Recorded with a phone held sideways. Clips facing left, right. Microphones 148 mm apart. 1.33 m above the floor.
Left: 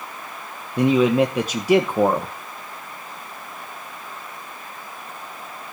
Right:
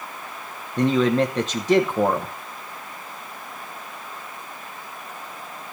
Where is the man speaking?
10° left (ahead or behind), 1.2 m.